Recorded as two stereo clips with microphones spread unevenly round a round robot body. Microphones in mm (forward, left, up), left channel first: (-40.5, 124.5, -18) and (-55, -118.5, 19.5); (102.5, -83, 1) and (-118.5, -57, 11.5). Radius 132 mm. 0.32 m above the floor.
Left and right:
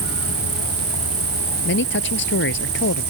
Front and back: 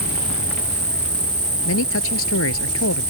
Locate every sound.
0.0 s an insect: 130° right
1.6 s a man speaking: 35° left